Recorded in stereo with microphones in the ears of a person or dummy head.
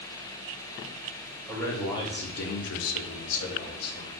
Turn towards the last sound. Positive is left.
turn(degrees=50)  # may be behind; listen again after turning